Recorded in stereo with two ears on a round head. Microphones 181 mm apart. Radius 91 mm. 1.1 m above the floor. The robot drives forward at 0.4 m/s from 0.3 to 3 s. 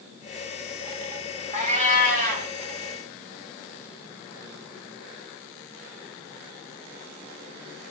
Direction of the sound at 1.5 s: 35° right (ahead or behind).